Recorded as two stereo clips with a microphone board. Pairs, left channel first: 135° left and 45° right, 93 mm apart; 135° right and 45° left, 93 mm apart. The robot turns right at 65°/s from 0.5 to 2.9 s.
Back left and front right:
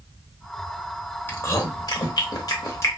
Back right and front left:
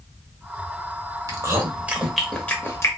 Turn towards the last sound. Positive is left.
turn(degrees=180)